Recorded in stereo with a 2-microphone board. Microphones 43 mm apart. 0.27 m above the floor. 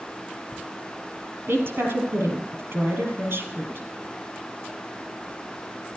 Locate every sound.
1.5 s a woman speaking: 60° right (ahead or behind), 5.5 m